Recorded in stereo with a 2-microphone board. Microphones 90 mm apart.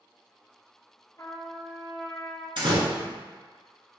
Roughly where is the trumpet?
Left.